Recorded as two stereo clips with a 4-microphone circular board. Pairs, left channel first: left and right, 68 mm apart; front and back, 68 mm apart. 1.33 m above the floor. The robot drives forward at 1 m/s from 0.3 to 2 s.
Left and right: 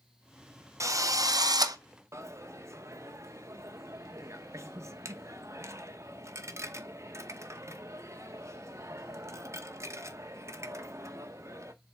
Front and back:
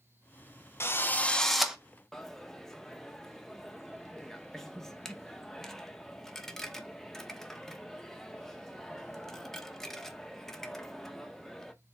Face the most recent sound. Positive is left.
turn(degrees=-85)